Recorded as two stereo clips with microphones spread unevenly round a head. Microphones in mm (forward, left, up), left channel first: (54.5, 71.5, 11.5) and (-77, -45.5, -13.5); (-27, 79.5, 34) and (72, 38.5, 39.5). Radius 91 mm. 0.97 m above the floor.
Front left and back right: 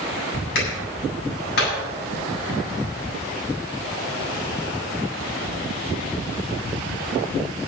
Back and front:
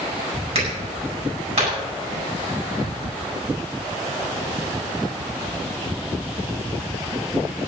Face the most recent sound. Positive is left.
turn(degrees=5)